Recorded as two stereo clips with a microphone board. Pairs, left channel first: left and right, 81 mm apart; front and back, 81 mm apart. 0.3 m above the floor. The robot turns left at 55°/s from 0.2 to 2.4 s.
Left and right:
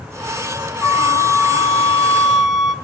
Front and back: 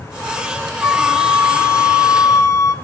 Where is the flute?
90° left, 0.9 m; by 2.8 s straight ahead, 0.9 m.